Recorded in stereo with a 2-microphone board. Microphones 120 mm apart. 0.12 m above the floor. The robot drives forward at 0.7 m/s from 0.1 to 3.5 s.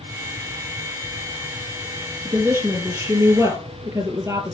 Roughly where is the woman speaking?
Right.